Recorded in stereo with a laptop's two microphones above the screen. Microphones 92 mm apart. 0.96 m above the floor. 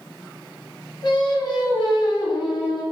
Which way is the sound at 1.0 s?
50° left (ahead or behind).